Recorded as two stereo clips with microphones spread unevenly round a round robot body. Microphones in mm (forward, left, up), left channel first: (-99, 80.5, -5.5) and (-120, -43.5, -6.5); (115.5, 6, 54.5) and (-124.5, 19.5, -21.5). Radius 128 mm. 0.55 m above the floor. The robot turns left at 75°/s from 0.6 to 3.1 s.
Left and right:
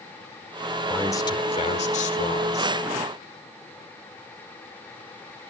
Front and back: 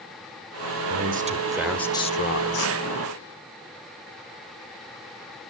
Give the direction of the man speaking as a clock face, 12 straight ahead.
7 o'clock.